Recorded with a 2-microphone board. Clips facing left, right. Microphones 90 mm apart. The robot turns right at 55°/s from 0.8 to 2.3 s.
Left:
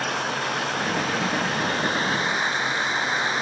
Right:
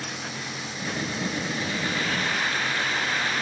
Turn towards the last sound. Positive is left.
turn(degrees=155)